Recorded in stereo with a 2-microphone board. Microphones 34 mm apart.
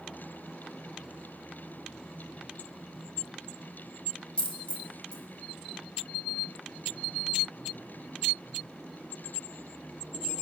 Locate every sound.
4.4 s a dropped coin: 30° left (ahead or behind), 1.5 m